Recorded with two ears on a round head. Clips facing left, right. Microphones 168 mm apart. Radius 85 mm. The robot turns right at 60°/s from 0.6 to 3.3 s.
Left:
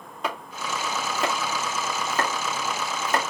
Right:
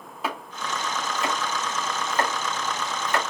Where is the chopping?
5° right (ahead or behind), 3.5 m; by 3.2 s 25° left (ahead or behind), 3.5 m.